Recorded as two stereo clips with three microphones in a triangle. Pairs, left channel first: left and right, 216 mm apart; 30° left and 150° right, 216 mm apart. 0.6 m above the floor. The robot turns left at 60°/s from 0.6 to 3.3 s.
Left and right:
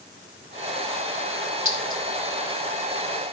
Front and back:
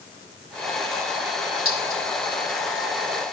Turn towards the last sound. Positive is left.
turn(degrees=115)